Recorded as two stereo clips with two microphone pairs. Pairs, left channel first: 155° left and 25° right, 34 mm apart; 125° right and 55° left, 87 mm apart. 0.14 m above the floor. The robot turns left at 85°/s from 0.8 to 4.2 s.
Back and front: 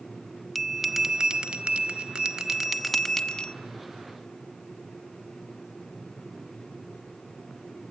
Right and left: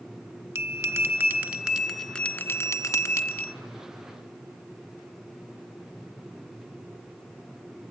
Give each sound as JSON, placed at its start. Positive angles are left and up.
{"t": 0.6, "sound": "a bell", "azimuth_deg": 60, "distance_m": 1.0}